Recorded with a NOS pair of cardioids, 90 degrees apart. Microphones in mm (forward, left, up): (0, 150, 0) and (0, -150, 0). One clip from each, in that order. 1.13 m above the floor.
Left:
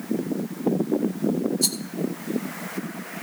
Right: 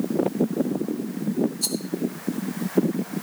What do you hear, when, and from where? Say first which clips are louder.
1.6 s a rattle: left 2 dB; 20° left, 1.1 m